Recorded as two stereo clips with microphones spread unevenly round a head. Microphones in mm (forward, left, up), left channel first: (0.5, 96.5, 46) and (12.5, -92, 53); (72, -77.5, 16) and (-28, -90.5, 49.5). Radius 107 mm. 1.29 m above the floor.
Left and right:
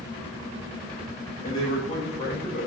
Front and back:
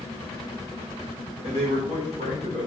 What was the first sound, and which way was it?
A man speaking, 160° left.